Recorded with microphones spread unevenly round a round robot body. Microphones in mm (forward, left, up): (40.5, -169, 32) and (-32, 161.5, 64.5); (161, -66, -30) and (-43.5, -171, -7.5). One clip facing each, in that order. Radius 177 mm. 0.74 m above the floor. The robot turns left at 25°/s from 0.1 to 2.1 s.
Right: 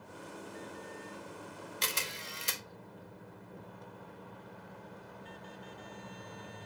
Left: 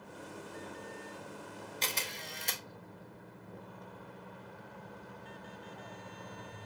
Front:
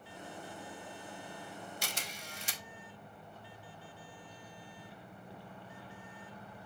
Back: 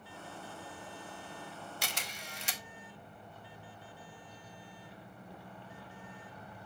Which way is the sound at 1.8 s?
140° right.